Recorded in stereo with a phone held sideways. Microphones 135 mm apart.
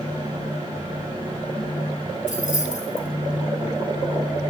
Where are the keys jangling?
75° left (ahead or behind), 3 m.